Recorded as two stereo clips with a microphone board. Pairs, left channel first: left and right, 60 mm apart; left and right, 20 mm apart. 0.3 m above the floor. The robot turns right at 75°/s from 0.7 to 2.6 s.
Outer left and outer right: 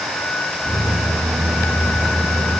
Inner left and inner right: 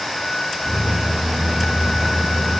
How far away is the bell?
No bell in this recording.